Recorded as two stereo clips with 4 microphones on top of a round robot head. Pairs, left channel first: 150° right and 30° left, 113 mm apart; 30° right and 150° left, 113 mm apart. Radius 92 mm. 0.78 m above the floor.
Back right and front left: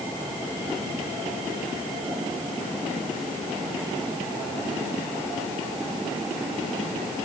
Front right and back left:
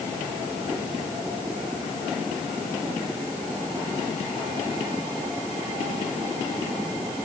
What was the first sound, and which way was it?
Only background noise.